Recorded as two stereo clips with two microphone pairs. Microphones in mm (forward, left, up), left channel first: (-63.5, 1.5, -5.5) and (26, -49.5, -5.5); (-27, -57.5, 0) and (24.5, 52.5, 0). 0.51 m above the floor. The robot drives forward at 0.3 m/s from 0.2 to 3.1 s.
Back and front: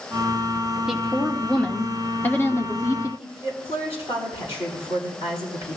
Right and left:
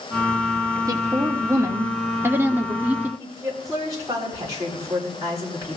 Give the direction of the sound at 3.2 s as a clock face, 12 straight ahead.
8 o'clock.